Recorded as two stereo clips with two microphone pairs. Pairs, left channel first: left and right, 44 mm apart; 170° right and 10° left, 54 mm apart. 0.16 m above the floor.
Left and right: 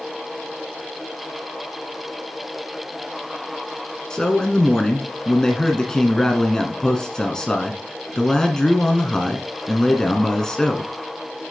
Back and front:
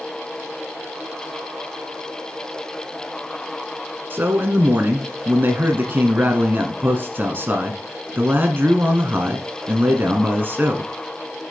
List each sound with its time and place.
4.1 s a man speaking: 20° left, 1.3 m